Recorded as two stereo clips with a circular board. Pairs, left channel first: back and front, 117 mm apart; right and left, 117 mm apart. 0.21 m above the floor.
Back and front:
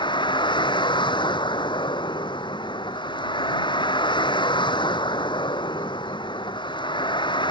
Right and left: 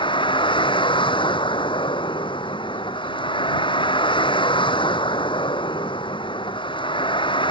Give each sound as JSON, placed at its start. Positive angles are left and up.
{"t": 0.0, "sound": "a vehicle", "azimuth_deg": -135}